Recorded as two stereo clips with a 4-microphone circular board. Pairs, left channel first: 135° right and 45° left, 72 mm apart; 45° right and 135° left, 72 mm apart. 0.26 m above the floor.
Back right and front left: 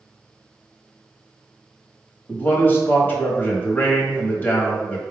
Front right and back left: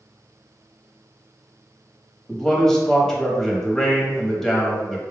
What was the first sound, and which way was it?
A man speaking, 120° right.